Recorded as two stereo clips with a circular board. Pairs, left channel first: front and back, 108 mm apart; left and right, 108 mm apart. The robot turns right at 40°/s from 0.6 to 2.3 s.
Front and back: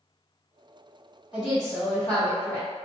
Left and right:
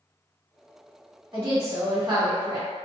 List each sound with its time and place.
1.3 s a woman speaking: 105° right, 1.8 m; by 2.7 s 65° right, 1.8 m